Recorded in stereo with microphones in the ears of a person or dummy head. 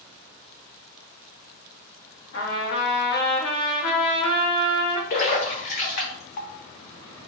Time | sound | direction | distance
2.3 | a trumpet | 70° left (ahead or behind) | 1.4 m
5.1 | a splash | 45° left (ahead or behind) | 0.7 m